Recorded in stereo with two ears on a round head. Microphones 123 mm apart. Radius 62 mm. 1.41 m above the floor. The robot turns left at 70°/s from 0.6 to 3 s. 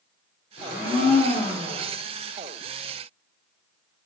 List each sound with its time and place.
0.6 s a blender: 90° left, 1.9 m; by 1.8 s straight ahead, 1.9 m